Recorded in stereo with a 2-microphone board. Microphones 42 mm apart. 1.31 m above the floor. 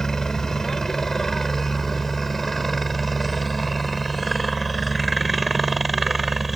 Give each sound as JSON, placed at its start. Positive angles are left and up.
{"t": 0.0, "sound": "a helicopter", "side_deg": 15}